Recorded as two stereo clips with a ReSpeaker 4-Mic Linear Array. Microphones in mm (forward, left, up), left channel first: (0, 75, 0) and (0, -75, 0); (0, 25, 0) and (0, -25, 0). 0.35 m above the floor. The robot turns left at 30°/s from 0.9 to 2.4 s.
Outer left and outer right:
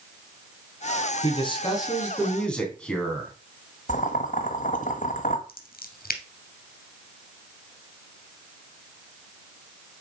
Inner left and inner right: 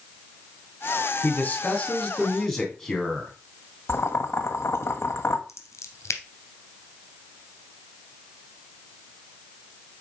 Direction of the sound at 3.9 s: 55° left (ahead or behind).